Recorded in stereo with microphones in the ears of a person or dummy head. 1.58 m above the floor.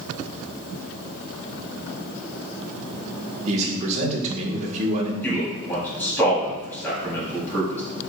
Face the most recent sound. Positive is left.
turn(degrees=10)  # may be behind; listen again after turning